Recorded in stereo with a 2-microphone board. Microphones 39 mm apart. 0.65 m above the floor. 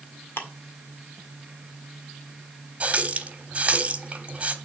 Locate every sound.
0.4 s ticking: 65° left (ahead or behind), 1.6 m
2.8 s a running tap: 35° right (ahead or behind), 1.2 m